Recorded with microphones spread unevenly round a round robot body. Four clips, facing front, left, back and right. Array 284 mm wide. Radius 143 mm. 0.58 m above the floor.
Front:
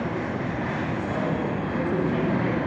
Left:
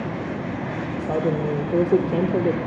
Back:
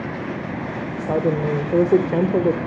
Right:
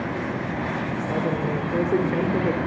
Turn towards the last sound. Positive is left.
turn(degrees=160)